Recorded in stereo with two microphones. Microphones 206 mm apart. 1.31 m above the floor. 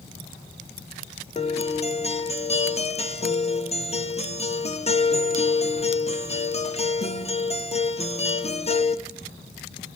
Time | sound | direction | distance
1.4 | a guitar | 30° left (ahead or behind) | 0.9 m